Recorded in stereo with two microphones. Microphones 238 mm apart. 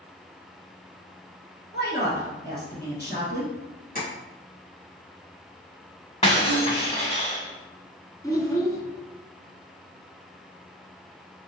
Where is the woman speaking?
45° left (ahead or behind), 1.6 m.